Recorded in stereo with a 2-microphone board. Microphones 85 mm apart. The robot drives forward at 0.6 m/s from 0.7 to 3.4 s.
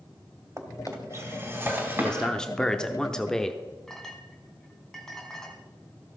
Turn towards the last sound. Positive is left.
turn(degrees=5)  # may be behind; listen again after turning